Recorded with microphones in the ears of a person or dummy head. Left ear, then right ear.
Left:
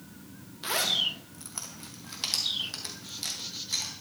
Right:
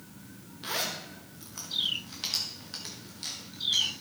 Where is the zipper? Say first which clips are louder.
Left 7 dB; 25° left (ahead or behind), 1.1 m.